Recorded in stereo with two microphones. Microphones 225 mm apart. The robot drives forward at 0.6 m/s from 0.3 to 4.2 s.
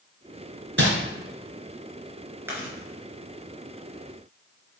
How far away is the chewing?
About 3.5 m.